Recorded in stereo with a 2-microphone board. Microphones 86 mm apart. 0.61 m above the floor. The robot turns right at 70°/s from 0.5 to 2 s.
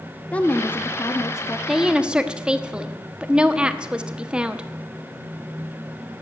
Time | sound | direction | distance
0.3 | a woman speaking | 30° left | 0.8 m
1.7 | a woman speaking | 5° right (ahead or behind) | 0.9 m